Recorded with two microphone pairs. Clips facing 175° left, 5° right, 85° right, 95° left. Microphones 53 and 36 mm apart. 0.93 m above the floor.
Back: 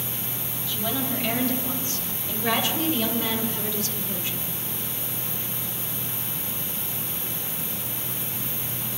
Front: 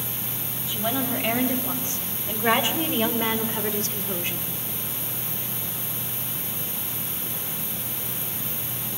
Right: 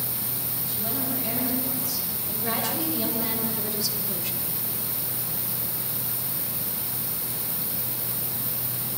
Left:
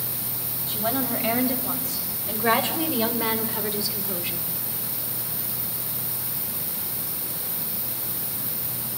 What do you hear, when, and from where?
0.7 s a woman speaking: 60° left, 4.5 m; by 4.5 s 35° left, 2 m